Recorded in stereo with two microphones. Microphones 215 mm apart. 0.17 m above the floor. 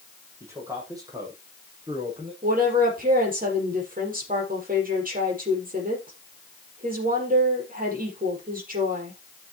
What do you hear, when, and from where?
0.4 s a man speaking: 15° right (ahead or behind), 6.5 m; by 2.3 s 25° right (ahead or behind), 6.5 m
2.4 s a woman speaking: 40° right (ahead or behind), 6 m